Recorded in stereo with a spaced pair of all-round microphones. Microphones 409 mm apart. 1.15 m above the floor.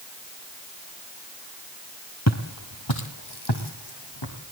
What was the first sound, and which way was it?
Footsteps, 40° left (ahead or behind).